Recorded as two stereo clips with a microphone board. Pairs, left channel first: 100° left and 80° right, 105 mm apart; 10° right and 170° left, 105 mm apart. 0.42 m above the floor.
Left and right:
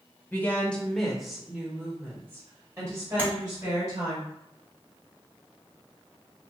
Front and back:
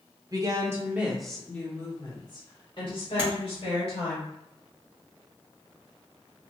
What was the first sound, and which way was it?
A woman speaking, 160° left.